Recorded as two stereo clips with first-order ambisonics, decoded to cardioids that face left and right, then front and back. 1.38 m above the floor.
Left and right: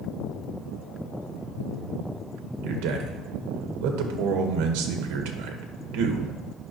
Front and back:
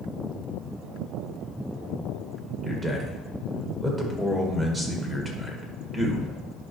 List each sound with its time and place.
2.6 s a man speaking: 105° right, 1.3 m